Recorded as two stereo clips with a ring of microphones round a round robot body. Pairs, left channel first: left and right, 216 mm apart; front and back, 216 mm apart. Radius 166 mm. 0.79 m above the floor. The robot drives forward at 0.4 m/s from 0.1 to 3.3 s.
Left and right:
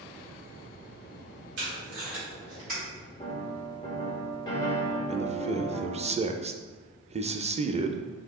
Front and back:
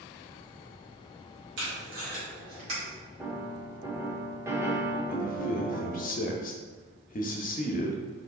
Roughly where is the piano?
Behind left.